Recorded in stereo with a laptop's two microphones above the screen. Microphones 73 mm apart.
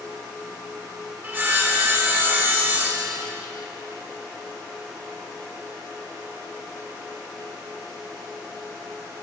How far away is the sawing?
About 1.5 m.